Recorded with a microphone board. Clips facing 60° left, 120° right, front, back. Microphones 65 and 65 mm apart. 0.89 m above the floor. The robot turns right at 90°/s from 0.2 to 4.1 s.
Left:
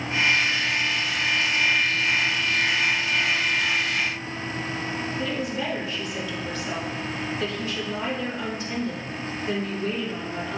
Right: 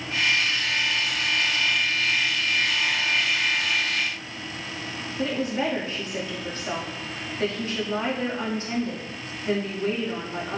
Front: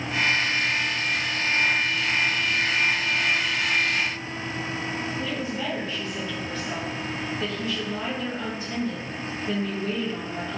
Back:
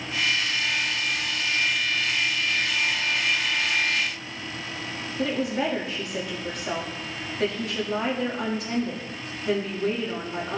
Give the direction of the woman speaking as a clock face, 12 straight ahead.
6 o'clock.